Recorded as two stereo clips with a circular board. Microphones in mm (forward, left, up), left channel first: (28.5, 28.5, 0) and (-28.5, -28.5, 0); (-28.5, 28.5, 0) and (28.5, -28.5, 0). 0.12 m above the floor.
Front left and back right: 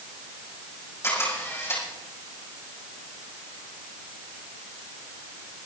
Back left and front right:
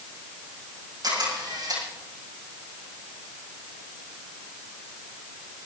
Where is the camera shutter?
10° right, 6 m.